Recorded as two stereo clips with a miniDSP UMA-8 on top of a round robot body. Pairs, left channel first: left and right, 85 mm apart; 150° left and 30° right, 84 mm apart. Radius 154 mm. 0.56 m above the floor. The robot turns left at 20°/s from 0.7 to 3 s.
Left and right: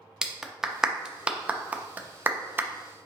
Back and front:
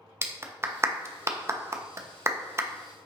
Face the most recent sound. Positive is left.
turn(degrees=-55)